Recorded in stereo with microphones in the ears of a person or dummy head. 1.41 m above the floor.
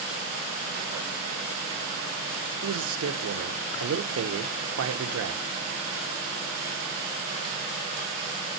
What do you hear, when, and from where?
2.6 s a man speaking: 80° right, 1.1 m